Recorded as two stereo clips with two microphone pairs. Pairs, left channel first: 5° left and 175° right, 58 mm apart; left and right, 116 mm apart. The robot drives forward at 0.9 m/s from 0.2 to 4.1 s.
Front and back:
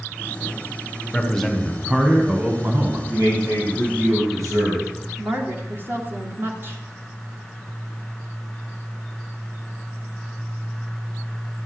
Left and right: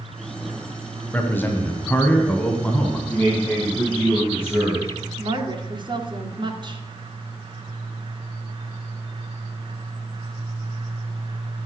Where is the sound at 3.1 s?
160° left, 7 m.